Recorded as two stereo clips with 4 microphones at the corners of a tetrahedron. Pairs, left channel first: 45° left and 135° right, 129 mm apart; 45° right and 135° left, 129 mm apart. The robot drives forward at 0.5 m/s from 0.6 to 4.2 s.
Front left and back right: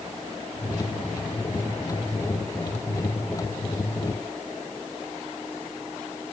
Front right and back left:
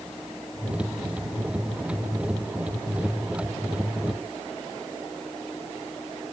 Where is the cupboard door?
No cupboard door in this recording.